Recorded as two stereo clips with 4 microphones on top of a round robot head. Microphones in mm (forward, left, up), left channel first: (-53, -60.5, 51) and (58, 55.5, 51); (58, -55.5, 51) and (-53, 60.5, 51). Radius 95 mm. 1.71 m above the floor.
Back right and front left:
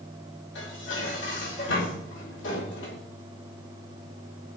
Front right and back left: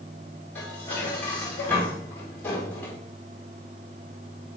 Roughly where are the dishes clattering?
Behind right.